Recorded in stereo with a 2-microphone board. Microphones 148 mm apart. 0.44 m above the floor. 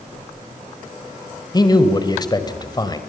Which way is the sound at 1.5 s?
25° left (ahead or behind).